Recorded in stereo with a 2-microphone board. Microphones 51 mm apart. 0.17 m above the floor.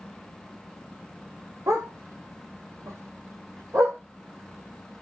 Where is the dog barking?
80° right, 2 m.